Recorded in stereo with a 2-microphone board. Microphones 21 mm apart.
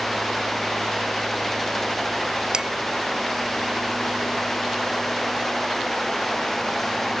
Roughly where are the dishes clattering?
Right.